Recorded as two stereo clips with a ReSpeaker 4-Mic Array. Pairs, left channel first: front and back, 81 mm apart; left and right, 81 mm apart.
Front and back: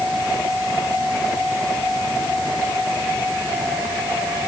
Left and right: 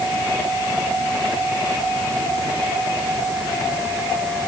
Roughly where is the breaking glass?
No breaking glass in this recording.